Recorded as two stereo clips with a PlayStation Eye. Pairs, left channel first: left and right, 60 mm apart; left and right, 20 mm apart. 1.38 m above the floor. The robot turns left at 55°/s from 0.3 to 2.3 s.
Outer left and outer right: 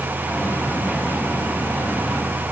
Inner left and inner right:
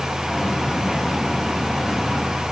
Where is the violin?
I don't hear a violin.